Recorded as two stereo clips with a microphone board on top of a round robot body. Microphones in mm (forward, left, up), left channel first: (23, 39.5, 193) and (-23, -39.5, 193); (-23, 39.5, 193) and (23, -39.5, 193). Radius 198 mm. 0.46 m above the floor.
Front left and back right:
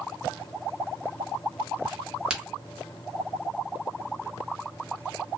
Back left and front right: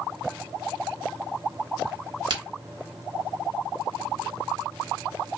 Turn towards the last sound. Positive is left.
turn(degrees=-40)